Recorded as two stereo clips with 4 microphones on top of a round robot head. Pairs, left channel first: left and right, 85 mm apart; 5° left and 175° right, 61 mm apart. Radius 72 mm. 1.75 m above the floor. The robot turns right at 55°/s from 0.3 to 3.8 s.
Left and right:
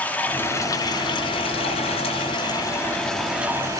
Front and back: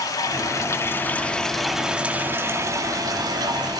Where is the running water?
20° left, 2.5 m; by 3.8 s 150° right, 2.5 m.